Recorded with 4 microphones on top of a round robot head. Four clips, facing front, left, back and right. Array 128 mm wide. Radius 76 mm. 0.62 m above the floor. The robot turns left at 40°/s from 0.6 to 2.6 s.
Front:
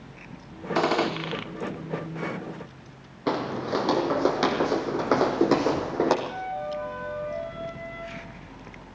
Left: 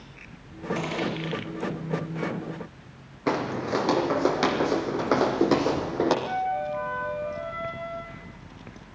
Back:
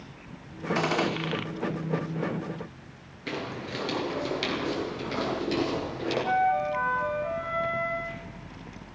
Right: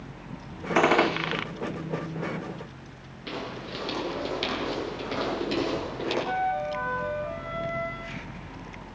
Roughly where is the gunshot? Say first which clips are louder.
Right 10 dB, front 4 dB; ahead right.